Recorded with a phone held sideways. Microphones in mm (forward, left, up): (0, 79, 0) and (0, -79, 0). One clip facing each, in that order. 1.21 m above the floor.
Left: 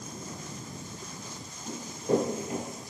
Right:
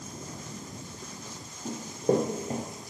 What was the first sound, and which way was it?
Running footsteps, 55° right (ahead or behind).